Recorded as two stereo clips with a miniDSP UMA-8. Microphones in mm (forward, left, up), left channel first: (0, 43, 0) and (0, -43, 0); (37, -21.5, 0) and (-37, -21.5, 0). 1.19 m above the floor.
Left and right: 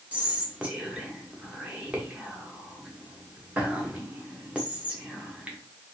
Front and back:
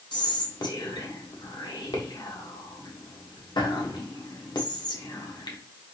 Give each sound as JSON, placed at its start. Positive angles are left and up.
{"t": 0.1, "sound": "whispering", "azimuth_deg": -15, "distance_m": 0.9}